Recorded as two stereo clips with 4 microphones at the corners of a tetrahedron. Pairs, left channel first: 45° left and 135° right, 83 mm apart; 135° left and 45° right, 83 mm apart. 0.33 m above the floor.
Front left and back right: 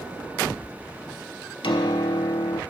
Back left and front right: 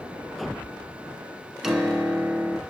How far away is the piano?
About 0.6 m.